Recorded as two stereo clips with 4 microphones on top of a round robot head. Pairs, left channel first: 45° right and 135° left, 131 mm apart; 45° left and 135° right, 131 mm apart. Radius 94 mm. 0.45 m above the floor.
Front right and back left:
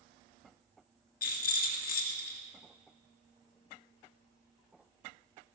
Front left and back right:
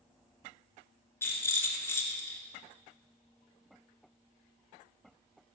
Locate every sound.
1.2 s a rattle: 30° right, 2 m